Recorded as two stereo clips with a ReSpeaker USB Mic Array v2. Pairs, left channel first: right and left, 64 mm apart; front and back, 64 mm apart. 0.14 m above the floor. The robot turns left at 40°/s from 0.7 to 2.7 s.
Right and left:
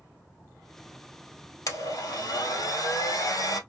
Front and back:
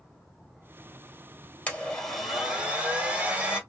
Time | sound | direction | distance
1.7 | a blender | 65° right | 1.4 m